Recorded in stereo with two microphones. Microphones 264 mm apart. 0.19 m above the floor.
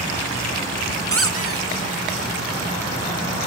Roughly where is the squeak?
Right.